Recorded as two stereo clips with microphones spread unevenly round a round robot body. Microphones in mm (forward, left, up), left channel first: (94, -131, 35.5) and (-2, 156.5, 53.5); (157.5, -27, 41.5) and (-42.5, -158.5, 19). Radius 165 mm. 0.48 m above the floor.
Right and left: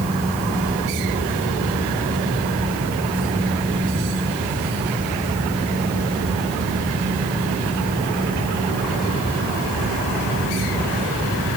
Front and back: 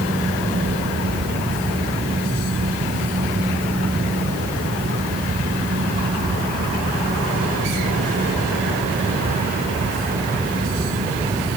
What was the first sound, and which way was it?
Only background noise.